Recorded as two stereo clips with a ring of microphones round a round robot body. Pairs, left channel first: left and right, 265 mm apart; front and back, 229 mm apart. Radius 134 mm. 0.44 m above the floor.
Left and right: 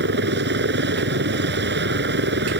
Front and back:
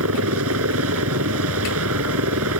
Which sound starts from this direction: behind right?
A helicopter, at 0.0 s.